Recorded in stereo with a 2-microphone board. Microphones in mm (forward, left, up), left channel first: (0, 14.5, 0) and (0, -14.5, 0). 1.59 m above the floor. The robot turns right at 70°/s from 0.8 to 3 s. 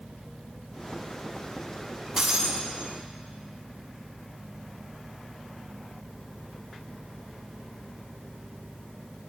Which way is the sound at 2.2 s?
150° right.